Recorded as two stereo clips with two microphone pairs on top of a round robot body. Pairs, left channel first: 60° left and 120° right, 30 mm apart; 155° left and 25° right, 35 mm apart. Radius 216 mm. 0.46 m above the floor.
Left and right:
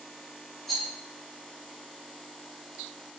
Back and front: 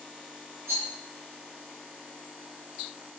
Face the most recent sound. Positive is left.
turn(degrees=-30)